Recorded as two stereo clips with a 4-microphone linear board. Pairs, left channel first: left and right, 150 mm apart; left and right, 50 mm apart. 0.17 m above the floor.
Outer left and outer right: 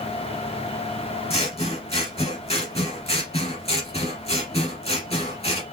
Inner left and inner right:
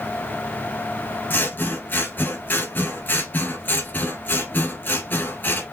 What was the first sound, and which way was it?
Scissors, 40° left (ahead or behind).